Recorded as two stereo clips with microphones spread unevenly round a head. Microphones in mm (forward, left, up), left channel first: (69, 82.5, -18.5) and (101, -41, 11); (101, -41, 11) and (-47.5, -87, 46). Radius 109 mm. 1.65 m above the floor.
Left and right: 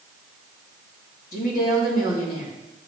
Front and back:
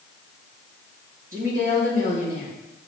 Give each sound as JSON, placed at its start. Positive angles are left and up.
{"t": 1.3, "sound": "a woman speaking", "azimuth_deg": 145, "distance_m": 3.0}